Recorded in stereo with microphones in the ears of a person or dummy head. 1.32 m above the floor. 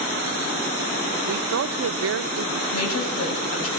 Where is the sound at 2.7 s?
85° left, 7.5 m.